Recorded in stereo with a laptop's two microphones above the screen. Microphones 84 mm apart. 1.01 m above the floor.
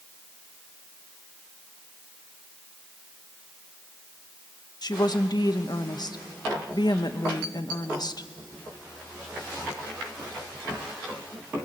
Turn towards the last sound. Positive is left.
turn(degrees=55)  # may be behind; listen again after turning